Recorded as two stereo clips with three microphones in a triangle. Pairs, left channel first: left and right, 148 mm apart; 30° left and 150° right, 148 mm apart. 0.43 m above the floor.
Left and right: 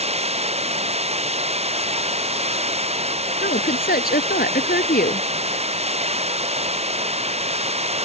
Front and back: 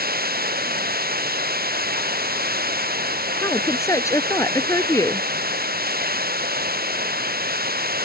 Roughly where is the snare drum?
I don't hear a snare drum.